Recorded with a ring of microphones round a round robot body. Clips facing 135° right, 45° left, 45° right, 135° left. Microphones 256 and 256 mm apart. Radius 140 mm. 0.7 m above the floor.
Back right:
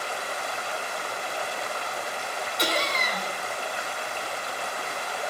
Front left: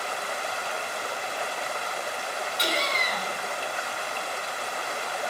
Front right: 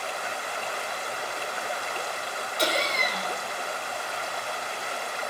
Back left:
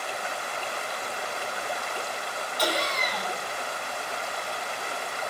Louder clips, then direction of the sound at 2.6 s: Back right 3 dB, front right 1 dB; 105° right.